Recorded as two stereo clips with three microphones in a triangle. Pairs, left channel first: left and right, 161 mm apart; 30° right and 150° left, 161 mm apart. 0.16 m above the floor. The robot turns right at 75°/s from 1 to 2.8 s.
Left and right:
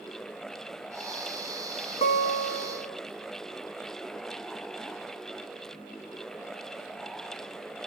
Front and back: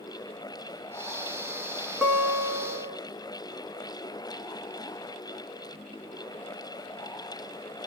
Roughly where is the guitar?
Left.